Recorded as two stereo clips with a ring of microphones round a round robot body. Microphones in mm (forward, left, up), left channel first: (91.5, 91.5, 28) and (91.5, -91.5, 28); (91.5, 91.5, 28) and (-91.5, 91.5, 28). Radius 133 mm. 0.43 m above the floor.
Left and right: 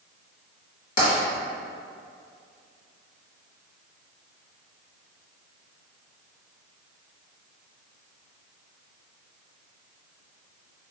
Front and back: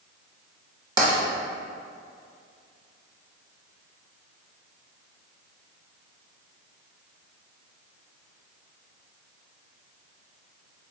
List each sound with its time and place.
1.0 s tapping: 115° left, 1.5 m